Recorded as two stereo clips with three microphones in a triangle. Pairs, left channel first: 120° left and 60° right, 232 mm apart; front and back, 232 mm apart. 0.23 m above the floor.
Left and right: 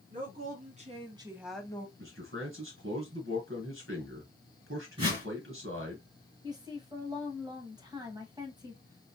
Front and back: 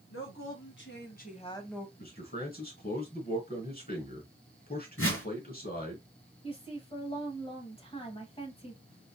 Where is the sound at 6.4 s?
15° right, 1.2 m.